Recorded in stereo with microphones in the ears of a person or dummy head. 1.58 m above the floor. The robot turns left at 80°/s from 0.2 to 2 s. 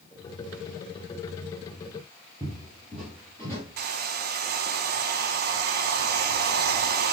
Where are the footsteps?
10° right (ahead or behind), 1.7 m; by 3.6 s 15° left (ahead or behind), 2 m.